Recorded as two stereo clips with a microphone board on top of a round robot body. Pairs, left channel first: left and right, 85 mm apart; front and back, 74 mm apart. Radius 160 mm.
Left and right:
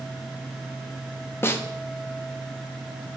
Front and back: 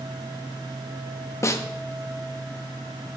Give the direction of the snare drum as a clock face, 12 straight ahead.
11 o'clock.